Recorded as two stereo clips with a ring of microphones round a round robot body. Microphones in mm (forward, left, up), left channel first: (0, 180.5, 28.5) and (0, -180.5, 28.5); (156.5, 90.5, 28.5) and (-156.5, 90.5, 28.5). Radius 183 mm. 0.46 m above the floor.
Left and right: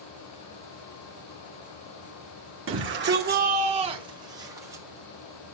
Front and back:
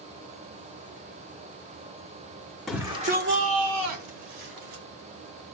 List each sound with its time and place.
2.7 s a shout: 90° right, 1.4 m; by 4.8 s 175° right, 3 m